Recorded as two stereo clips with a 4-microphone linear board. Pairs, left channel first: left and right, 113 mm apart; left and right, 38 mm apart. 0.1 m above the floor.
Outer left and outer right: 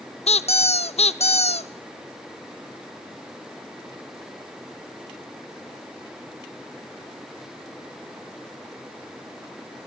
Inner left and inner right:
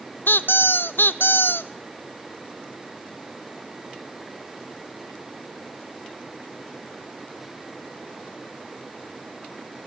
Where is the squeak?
70° left (ahead or behind), 0.7 m.